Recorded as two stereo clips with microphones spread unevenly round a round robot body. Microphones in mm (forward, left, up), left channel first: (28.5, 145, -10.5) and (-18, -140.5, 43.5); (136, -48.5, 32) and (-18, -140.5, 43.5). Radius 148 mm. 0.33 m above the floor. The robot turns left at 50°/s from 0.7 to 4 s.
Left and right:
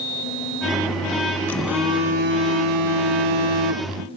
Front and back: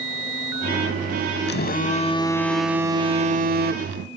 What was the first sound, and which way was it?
A phone buzzing, 5° right.